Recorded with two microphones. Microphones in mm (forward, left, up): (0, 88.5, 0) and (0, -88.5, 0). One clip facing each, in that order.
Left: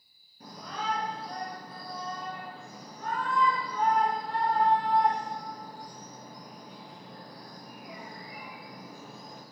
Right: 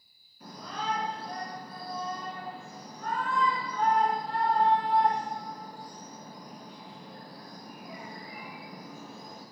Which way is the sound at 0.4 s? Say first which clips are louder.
Even; 45° left (ahead or behind).